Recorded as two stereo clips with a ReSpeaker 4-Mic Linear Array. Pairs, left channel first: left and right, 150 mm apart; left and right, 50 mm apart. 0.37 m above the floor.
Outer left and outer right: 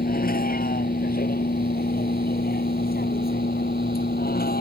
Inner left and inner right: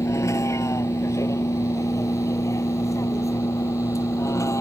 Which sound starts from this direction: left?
A vehicle, at 0.0 s.